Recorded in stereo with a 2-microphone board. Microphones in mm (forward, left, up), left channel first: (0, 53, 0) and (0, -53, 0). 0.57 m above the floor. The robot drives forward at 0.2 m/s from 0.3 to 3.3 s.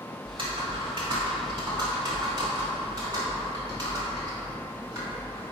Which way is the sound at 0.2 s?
50° right (ahead or behind).